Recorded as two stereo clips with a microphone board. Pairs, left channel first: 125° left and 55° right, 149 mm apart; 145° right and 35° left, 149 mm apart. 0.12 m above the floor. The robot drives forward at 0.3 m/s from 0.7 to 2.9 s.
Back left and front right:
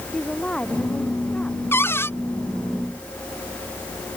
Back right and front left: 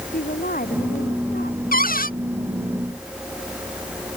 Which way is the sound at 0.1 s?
150° right.